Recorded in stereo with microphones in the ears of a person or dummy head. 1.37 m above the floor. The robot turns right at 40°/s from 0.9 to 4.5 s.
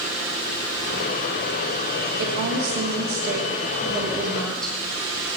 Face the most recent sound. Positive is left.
turn(degrees=0)